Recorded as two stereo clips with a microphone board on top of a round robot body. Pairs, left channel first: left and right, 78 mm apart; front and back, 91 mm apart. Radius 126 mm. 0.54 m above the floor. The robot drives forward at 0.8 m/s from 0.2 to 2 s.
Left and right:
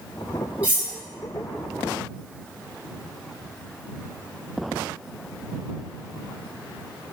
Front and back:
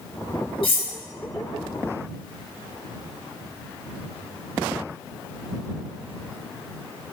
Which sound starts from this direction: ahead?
Cutlery clinking, at 0.6 s.